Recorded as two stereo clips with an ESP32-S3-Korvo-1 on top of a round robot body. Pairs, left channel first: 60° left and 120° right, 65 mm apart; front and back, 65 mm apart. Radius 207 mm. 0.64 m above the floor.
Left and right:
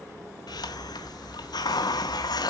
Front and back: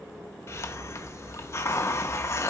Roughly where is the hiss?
Ahead left.